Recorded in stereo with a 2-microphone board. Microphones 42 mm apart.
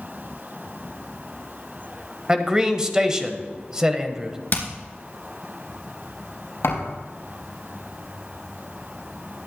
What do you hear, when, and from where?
2.3 s a man speaking: 15° right (ahead or behind), 0.9 m
4.5 s hammering: 50° left (ahead or behind), 2.5 m
6.6 s a thud: 80° left, 4 m